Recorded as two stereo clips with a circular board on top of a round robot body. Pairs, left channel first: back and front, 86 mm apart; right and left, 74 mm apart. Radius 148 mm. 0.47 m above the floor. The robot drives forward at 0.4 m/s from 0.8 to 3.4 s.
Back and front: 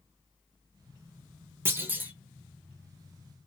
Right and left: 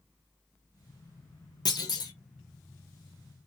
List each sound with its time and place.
1.6 s a clunk: 65° right, 1.3 m; by 2.1 s 70° right, 1.2 m